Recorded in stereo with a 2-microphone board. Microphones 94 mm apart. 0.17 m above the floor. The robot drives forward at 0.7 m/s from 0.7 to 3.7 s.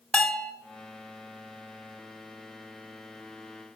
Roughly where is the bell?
Centre.